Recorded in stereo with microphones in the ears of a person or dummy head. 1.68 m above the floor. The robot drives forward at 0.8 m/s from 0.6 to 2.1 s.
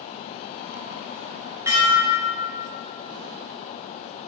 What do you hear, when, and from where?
1.7 s dishes clattering: 15° right (ahead or behind), 0.9 m; by 2.5 s 10° right (ahead or behind), 1.2 m